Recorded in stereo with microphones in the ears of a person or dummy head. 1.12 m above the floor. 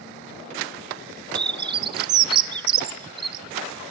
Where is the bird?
30° right (ahead or behind), 0.7 m.